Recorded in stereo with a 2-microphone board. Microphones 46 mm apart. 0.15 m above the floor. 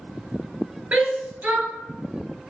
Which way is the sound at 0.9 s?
35° right (ahead or behind).